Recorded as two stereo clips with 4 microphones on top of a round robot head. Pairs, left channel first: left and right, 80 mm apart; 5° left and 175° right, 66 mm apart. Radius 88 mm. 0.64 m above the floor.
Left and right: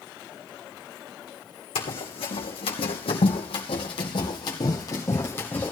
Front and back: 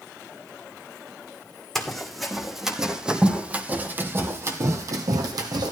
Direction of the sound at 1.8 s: 90° left.